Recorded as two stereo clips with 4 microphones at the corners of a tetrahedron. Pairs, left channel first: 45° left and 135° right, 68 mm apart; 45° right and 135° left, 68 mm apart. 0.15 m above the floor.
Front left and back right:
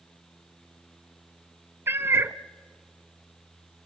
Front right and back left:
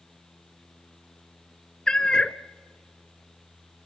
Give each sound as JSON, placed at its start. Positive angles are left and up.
{"t": 1.9, "sound": "a cat meowing", "azimuth_deg": -115, "distance_m": 0.6}